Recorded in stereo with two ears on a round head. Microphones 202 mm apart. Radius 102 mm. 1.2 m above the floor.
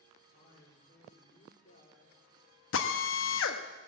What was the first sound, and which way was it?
A man speaking, 35° left (ahead or behind).